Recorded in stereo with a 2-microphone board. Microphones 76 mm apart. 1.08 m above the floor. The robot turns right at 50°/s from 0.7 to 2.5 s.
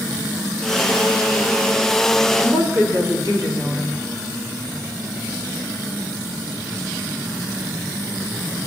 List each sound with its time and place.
2.4 s a woman speaking: 45° left (ahead or behind), 2.5 m; by 4.0 s 40° left (ahead or behind), 2.5 m